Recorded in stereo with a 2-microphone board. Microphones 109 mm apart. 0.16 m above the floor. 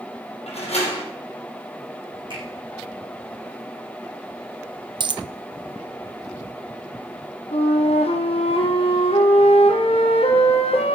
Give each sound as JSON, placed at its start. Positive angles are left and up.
{"t": 0.5, "sound": "a door slam", "side_deg": 75, "distance_m": 4.5}
{"t": 2.3, "sound": "a finger snap", "side_deg": -50, "distance_m": 8.5}
{"t": 5.0, "sound": "a dropped coin", "side_deg": -50, "distance_m": 0.5}
{"t": 7.5, "sound": "a flute", "side_deg": 65, "distance_m": 1.8}